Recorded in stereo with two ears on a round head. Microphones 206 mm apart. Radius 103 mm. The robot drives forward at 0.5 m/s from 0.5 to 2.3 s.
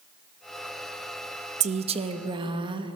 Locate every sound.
1.6 s a woman speaking: 30° right (ahead or behind), 0.5 m; by 3.0 s 20° right (ahead or behind), 0.8 m